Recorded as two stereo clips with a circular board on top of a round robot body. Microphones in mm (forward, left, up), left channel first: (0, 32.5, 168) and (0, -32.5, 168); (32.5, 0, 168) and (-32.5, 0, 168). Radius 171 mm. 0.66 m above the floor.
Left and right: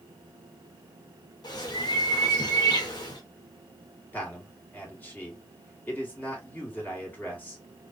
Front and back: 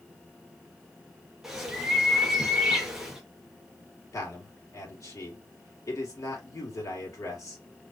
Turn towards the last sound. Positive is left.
turn(degrees=25)